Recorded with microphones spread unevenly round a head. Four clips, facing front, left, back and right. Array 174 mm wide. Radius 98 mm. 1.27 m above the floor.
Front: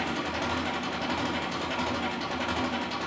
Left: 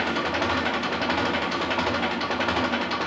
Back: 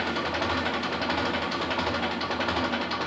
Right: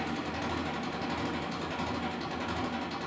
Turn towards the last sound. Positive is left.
turn(degrees=105)